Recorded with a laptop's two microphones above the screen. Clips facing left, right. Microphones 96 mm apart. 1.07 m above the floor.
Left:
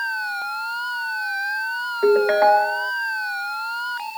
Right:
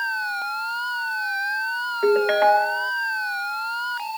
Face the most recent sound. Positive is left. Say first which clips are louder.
# left 2 dB
turn(degrees=10)  # may be behind; listen again after turning